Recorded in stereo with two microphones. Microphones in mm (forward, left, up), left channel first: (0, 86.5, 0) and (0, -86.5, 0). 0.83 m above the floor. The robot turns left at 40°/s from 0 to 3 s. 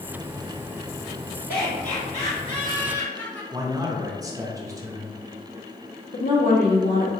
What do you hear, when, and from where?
1.5 s laughter: 70° left, 1.9 m; by 3.4 s 10° left, 1.9 m
3.5 s a man speaking: 20° right (ahead or behind), 0.5 m
6.1 s a woman speaking: 60° left (ahead or behind), 1.2 m